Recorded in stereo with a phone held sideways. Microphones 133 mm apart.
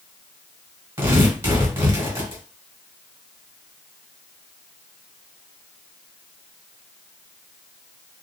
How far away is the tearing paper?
About 1.6 m.